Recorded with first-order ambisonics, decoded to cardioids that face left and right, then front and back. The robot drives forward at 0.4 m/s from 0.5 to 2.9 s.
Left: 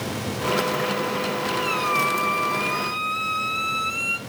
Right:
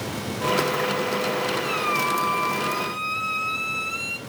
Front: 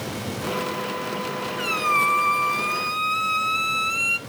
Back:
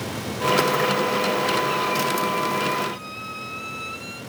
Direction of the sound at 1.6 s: 5° left.